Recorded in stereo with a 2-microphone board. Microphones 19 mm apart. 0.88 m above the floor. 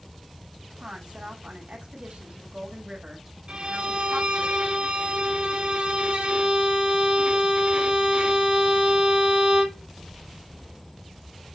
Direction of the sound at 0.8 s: 75° right (ahead or behind).